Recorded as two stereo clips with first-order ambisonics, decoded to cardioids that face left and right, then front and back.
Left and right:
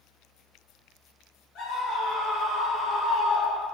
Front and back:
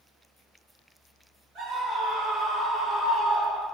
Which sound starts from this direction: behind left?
A scream, at 1.6 s.